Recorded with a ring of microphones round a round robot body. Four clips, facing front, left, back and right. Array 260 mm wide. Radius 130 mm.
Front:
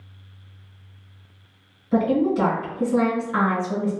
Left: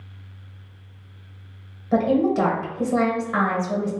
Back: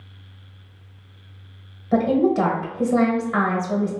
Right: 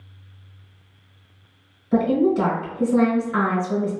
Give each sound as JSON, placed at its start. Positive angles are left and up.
{"t": 1.9, "sound": "a woman speaking", "azimuth_deg": 135, "distance_m": 1.6}